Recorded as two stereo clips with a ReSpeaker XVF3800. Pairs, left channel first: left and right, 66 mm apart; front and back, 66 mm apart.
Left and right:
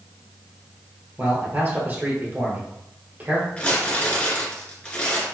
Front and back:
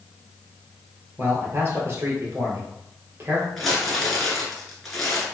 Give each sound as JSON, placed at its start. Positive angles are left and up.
{"t": 1.2, "sound": "a man speaking", "azimuth_deg": -140, "distance_m": 1.8}
{"t": 3.6, "sound": "crumpling", "azimuth_deg": 80, "distance_m": 1.4}